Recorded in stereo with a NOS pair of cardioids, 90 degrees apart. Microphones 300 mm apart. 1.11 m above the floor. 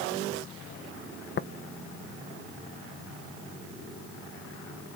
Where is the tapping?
35° left, 0.8 m.